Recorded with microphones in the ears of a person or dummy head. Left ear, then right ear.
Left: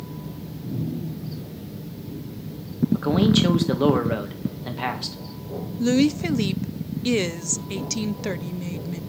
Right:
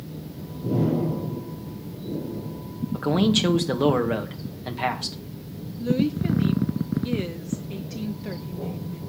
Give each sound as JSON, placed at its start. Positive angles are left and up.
{"t": 2.9, "sound": "a man speaking", "side_deg": -15, "distance_m": 1.6}
{"t": 5.8, "sound": "a woman speaking", "side_deg": 65, "distance_m": 0.7}